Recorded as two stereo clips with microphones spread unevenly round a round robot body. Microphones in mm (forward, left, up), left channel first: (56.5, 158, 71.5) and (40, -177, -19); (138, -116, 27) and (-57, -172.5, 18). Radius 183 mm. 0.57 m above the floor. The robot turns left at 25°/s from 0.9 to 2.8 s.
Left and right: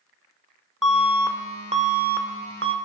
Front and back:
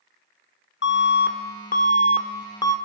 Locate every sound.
0.8 s an alarm: 10° right, 1.5 m; by 2.8 s 55° right, 1.5 m